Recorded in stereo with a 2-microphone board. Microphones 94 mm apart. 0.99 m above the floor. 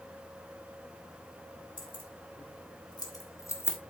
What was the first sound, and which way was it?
Keys jangling, 65° left (ahead or behind).